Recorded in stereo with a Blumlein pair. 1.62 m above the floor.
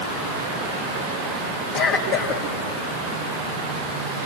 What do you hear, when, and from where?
1.7 s a cough: 40° left, 3.5 m